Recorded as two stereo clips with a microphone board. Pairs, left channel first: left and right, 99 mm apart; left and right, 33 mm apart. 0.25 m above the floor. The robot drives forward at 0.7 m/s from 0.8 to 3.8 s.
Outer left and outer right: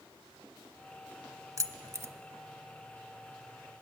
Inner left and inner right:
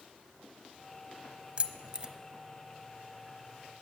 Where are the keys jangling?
35° right (ahead or behind), 0.9 m; by 2.1 s 30° right (ahead or behind), 1.1 m.